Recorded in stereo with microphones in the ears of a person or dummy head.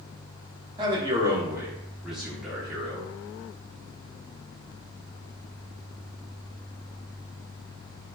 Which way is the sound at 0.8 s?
20° right (ahead or behind).